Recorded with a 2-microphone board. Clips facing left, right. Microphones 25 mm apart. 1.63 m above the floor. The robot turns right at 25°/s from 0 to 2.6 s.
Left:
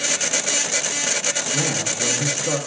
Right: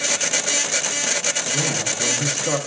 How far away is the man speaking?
About 1.1 m.